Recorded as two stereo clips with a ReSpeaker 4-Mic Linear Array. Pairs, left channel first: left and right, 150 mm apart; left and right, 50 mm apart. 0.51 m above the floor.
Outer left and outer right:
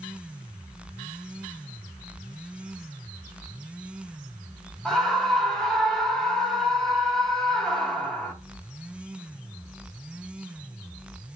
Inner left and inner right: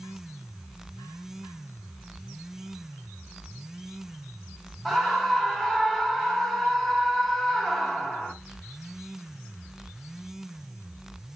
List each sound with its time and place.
4.8 s a scream: 5° left (ahead or behind), 0.7 m